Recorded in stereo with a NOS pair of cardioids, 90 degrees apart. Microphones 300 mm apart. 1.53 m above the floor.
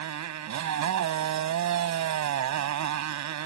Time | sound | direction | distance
0.0 | a motorcycle | 70° right | ?